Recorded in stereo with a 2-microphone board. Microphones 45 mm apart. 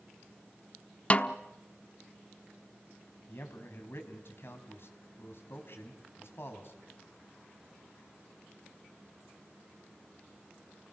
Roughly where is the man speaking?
Left.